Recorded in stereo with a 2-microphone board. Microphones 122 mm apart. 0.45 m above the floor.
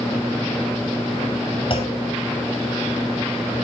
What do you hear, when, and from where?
1.7 s a clunk: 50° left (ahead or behind), 3 m